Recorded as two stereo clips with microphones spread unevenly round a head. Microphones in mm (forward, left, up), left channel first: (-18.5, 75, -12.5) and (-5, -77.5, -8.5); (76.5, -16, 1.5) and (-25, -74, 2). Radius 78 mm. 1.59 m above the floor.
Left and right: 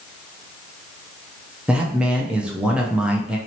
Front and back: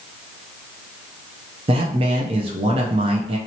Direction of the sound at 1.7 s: 165° right.